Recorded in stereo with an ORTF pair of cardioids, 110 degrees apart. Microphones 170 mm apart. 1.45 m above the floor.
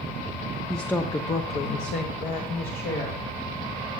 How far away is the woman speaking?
About 0.6 m.